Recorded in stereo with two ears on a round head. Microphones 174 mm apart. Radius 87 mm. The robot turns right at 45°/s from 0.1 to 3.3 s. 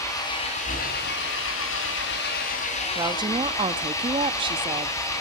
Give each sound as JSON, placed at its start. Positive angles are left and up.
{"t": 0.0, "sound": "an engine running", "azimuth_deg": 20, "distance_m": 4.5}
{"t": 3.0, "sound": "a woman speaking", "side_deg": -20, "distance_m": 0.6}